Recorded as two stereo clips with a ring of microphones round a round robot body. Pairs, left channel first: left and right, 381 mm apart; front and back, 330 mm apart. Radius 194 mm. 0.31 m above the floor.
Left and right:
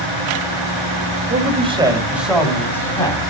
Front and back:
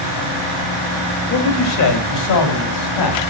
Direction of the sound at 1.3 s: 35° right.